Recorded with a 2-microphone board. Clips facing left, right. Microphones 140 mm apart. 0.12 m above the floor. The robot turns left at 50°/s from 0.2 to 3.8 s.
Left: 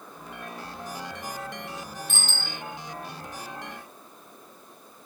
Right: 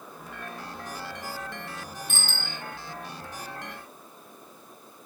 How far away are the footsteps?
I don't hear footsteps.